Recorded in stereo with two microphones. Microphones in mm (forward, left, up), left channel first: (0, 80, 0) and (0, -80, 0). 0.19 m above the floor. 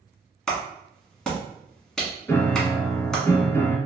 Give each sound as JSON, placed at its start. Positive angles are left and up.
{"t": 0.5, "sound": "a clap", "side_deg": 5, "distance_m": 1.4}
{"t": 2.3, "sound": "a piano", "side_deg": 15, "distance_m": 0.8}